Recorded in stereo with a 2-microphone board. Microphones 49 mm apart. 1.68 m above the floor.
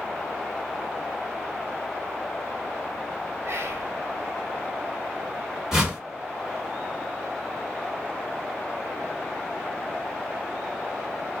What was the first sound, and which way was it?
Whispering, 75° right (ahead or behind).